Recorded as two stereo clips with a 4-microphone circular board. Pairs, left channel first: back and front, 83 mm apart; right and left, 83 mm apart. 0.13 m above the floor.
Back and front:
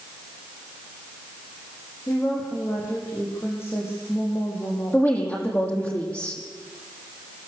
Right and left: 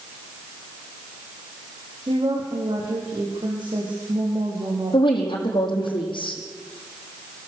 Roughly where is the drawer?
No drawer in this recording.